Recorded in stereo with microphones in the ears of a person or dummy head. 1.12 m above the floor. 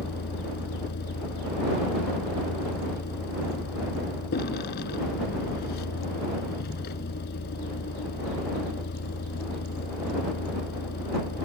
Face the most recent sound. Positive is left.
turn(degrees=50)  # may be behind; listen again after turning